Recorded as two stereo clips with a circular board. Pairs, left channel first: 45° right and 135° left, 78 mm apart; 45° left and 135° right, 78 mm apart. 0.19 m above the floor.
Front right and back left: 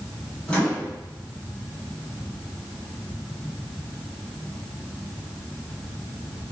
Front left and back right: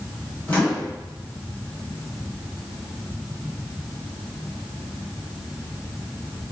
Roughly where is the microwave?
Ahead.